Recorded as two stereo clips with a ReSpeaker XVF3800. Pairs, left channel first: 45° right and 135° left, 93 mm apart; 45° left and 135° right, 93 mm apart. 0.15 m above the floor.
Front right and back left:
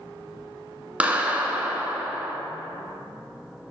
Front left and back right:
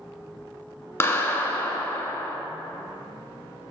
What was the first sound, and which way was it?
A clap, 75° left.